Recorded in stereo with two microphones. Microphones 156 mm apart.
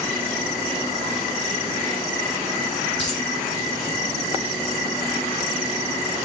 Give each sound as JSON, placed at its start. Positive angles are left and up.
{"t": 3.0, "sound": "a dropped coin", "side_deg": 5, "distance_m": 6.5}